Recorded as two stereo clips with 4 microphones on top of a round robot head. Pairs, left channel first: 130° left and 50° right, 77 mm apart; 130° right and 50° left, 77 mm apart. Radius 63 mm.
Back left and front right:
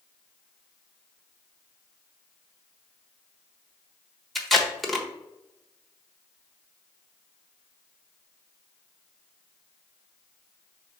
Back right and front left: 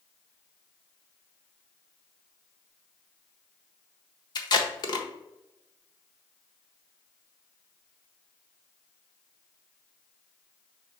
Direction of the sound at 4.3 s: 140° right.